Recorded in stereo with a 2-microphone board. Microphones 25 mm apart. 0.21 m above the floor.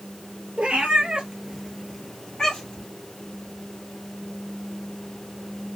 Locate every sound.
0.6 s a cat meowing: 60° right (ahead or behind), 0.9 m; by 2.9 s 35° left (ahead or behind), 1.3 m